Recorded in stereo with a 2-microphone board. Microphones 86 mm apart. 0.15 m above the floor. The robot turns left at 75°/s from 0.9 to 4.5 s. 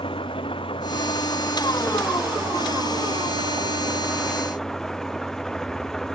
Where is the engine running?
85° left; by 6.2 s 175° left.